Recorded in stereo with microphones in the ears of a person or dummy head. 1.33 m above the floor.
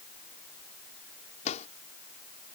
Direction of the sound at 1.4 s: 40° left (ahead or behind).